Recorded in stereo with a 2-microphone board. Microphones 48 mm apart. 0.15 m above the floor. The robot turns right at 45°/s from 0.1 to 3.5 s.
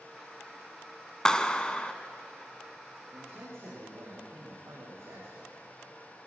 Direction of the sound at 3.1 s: 50° right (ahead or behind).